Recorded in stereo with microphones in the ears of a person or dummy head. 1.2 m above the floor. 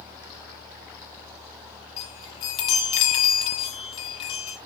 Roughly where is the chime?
Left.